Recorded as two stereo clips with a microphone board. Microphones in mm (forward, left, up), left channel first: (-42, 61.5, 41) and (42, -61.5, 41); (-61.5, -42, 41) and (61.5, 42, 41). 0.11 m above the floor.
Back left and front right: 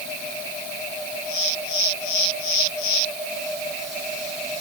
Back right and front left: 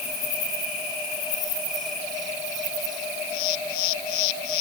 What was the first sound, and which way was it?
Only background noise.